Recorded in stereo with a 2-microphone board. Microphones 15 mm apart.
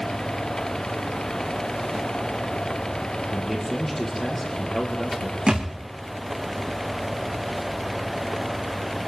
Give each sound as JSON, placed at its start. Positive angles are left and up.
{"t": 3.3, "sound": "a man speaking", "side_deg": 0, "distance_m": 5.0}
{"t": 5.5, "sound": "a thud", "side_deg": -85, "distance_m": 4.0}